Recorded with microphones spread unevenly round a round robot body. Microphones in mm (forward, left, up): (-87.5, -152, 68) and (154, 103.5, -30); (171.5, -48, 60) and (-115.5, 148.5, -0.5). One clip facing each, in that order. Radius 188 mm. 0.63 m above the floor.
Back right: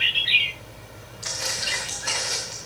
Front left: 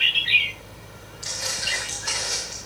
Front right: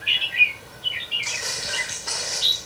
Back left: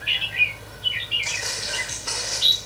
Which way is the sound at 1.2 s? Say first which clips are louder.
Back right 1 dB, even; 110° right.